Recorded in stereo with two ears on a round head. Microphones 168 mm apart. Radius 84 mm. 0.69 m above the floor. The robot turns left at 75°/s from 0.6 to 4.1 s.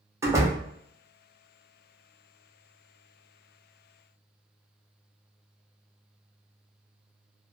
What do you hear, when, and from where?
0.2 s a door slam: 15° right (ahead or behind), 0.6 m